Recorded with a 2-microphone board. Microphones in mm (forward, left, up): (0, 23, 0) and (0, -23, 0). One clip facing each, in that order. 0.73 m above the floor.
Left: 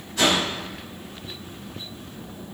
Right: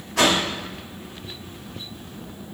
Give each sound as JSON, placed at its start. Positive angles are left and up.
{"t": 0.2, "sound": "a whoosh", "side_deg": -75, "distance_m": 0.8}